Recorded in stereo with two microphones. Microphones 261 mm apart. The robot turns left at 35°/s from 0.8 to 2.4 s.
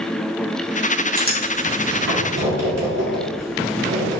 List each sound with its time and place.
1.1 s writing: 30° right (ahead or behind), 2.5 m; by 4.2 s 75° right (ahead or behind), 2.5 m